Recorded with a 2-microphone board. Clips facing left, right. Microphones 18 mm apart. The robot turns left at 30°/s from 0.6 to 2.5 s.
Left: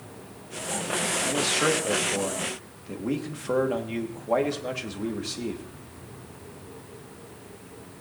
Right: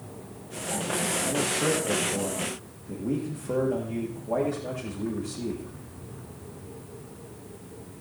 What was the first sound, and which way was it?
A man speaking, 120° left.